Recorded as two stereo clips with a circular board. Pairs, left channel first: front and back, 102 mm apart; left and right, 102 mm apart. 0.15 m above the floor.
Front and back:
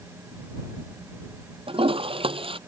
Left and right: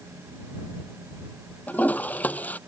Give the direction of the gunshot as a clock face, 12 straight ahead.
I don't hear a gunshot.